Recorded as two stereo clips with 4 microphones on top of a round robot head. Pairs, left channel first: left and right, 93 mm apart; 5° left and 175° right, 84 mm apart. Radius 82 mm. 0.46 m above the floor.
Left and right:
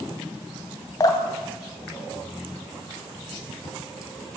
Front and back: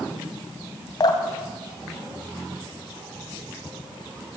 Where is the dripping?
40° left, 3 m.